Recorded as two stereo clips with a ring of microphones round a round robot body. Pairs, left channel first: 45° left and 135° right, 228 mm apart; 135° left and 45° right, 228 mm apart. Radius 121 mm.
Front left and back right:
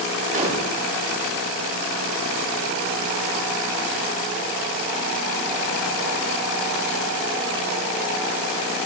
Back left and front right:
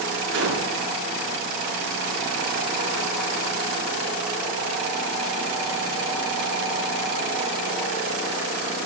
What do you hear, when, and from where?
0.3 s a gunshot: 80° right, 7 m